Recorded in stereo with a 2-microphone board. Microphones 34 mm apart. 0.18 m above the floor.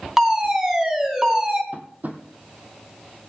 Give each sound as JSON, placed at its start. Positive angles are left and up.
{"t": 0.2, "sound": "a fire alarm", "side_deg": -15, "distance_m": 2.5}
{"t": 1.7, "sound": "tapping", "side_deg": -50, "distance_m": 1.2}